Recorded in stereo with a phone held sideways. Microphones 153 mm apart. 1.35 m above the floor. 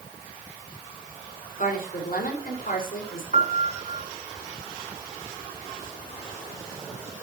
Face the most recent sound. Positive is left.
turn(degrees=-50)  # may be behind; listen again after turning